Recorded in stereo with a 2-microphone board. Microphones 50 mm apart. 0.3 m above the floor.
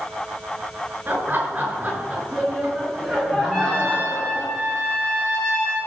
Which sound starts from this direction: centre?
A trumpet, at 3.5 s.